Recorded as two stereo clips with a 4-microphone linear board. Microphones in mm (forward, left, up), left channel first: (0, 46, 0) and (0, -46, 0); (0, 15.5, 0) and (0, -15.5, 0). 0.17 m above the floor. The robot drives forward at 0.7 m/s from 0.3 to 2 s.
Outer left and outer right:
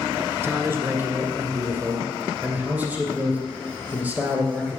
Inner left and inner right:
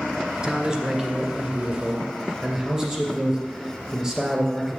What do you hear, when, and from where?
0.4 s a man speaking: 20° right (ahead or behind), 1.4 m; by 4.8 s 15° right (ahead or behind), 2.5 m